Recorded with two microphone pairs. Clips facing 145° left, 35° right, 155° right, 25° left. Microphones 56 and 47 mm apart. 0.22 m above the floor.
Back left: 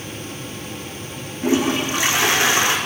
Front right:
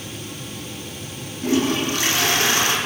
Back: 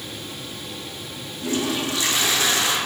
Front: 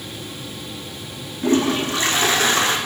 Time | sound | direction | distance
1.4 | a toilet flushing | 75° left | 3 m